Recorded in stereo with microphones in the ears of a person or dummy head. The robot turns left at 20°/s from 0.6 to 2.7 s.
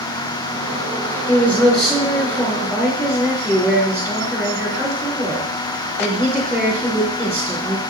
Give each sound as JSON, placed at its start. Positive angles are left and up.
{"t": 1.3, "sound": "a woman speaking", "side_deg": 10, "distance_m": 3.0}